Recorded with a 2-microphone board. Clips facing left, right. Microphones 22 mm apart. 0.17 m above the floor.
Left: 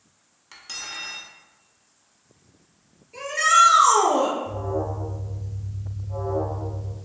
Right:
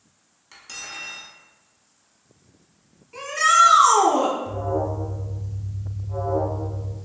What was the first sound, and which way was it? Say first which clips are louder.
Cutlery clinking: left 2 dB; 15° left (ahead or behind).